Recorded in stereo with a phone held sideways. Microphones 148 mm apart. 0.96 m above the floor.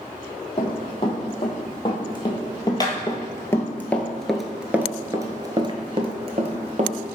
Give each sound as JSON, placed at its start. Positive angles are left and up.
{"t": 0.6, "sound": "running footsteps", "side_deg": 35, "distance_m": 2.5}